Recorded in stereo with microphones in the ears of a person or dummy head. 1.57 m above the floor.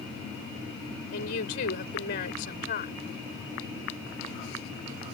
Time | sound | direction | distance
1.1 | a woman speaking | 50° left (ahead or behind) | ?